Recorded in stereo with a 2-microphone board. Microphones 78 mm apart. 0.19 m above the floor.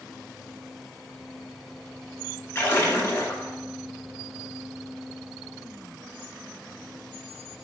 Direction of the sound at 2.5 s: 35° left (ahead or behind).